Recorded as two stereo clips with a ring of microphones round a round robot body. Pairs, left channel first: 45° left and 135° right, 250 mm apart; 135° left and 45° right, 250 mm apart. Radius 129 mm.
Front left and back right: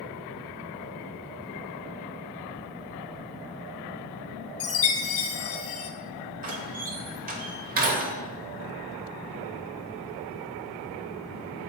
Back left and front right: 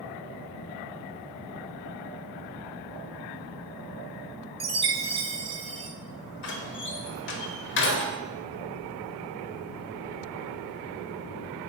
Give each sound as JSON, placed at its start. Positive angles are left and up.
{"t": 4.6, "sound": "a chime", "azimuth_deg": 20, "distance_m": 0.8}
{"t": 6.4, "sound": "a door slam", "azimuth_deg": 170, "distance_m": 1.0}